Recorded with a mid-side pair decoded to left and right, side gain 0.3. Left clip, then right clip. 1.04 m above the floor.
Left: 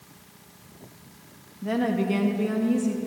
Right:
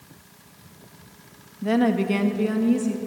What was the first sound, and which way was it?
A woman speaking, 60° right.